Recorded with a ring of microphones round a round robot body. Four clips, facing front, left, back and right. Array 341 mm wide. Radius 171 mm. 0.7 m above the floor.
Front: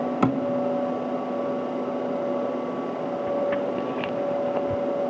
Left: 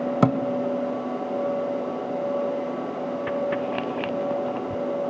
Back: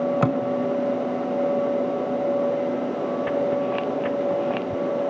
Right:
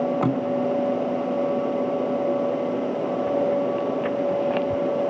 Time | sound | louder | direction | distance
0.2 | a thud | left 2 dB, front 4 dB | 105° left | 1.6 m